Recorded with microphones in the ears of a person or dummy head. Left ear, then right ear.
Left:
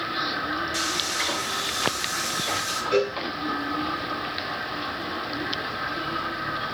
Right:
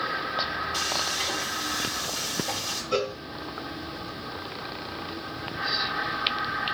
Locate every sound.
0.7 s frying: 35° left (ahead or behind), 5 m
2.9 s a cowbell: 20° left (ahead or behind), 3.5 m